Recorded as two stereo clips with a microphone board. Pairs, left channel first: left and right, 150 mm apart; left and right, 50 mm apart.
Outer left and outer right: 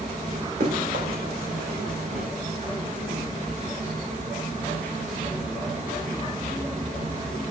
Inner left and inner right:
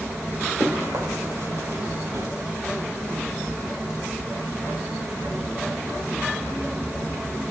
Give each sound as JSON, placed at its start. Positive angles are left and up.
{"t": 0.6, "sound": "running footsteps", "side_deg": -85, "distance_m": 4.5}